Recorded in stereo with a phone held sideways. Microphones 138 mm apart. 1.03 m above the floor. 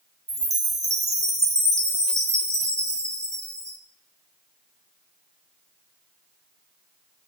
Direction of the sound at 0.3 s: 50° right (ahead or behind).